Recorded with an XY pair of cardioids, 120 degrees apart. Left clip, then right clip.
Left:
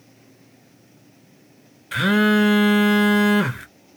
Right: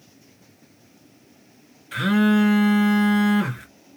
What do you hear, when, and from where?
1.9 s a phone buzzing: 35° left, 0.8 m